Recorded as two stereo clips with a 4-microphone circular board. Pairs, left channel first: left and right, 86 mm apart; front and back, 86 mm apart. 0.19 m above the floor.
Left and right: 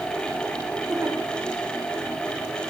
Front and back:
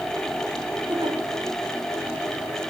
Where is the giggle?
150° right, 9.5 m.